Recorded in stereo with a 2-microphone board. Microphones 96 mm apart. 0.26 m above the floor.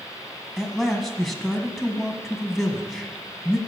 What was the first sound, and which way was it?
A man speaking, centre (ahead or behind).